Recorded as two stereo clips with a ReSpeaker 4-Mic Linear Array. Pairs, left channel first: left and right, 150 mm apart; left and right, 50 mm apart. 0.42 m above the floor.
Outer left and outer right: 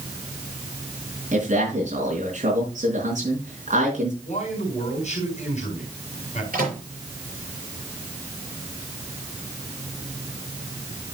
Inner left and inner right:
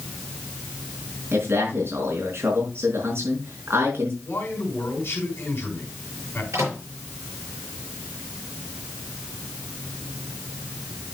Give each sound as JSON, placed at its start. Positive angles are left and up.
{"t": 1.3, "sound": "a man speaking", "side_deg": -55, "distance_m": 4.0}
{"t": 4.2, "sound": "a man speaking", "side_deg": 50, "distance_m": 4.0}
{"t": 6.5, "sound": "a microwave", "side_deg": -65, "distance_m": 5.5}